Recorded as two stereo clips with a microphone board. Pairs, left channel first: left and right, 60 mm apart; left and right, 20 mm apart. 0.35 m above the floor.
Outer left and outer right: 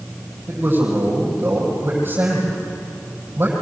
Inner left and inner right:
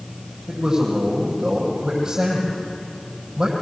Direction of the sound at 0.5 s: 40° right (ahead or behind).